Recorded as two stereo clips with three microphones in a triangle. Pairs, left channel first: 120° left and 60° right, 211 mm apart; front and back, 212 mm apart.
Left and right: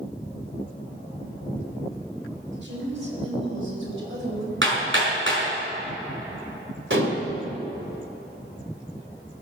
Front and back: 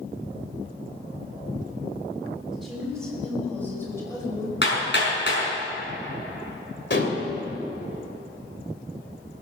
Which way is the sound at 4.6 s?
35° right.